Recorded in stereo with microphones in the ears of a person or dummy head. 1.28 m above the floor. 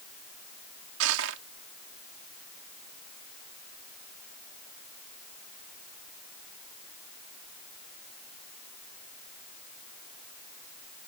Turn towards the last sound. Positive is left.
turn(degrees=-80)